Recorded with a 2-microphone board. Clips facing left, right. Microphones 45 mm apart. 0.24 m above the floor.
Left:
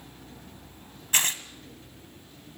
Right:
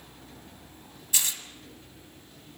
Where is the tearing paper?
50° left (ahead or behind), 1.4 m.